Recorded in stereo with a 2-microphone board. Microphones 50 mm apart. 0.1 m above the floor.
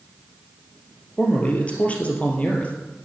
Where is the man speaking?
25° left (ahead or behind), 2.5 m.